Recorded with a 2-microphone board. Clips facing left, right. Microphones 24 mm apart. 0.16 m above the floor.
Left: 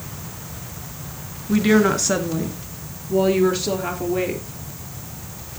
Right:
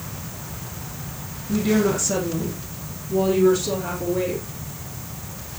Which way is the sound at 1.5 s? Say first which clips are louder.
Left 4 dB; 50° left (ahead or behind).